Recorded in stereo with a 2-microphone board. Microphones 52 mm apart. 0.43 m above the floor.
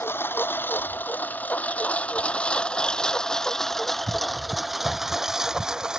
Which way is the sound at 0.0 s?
45° left (ahead or behind).